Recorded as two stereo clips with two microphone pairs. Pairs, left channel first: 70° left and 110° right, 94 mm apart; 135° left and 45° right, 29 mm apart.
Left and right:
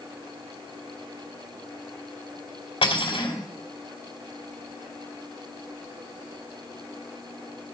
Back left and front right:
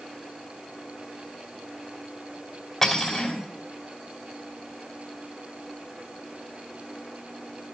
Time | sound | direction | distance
2.8 | cutlery clinking | 60° left | 1.9 m